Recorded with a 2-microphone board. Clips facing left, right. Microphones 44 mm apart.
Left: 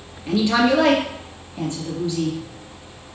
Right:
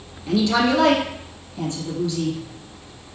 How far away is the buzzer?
No buzzer in this recording.